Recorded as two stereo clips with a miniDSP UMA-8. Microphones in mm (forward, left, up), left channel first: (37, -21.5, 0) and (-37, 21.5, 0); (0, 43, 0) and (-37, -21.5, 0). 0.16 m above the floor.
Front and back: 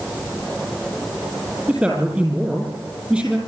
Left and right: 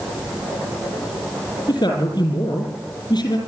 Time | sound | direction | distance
1.7 | a man speaking | 75° left | 5 m